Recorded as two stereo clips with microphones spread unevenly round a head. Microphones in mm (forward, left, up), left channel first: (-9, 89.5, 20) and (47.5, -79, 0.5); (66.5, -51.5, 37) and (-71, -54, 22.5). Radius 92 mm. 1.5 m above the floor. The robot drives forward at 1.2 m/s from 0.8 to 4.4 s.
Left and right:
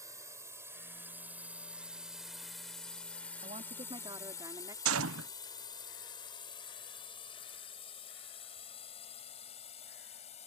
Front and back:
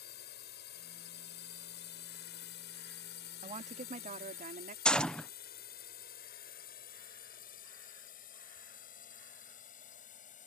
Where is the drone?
Straight ahead; by 10.5 s 50° left.